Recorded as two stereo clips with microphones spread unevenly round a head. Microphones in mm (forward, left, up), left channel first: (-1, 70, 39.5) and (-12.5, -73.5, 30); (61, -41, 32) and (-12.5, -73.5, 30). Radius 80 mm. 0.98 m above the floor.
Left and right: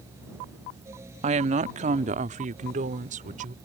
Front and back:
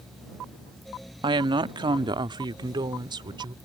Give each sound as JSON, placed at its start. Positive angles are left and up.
{"t": 1.2, "sound": "a woman speaking", "azimuth_deg": -140}